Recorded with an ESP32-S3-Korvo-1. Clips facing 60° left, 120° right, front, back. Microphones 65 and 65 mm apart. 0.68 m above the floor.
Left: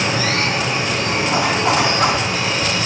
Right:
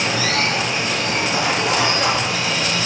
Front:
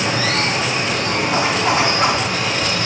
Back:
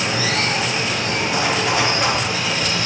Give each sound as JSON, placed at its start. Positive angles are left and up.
{"t": 0.0, "sound": "running water", "azimuth_deg": 20, "distance_m": 6.5}
{"t": 1.3, "sound": "a zipper", "azimuth_deg": 45, "distance_m": 4.0}